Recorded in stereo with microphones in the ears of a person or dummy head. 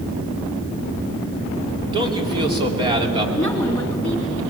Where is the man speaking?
25° right (ahead or behind), 3.5 m.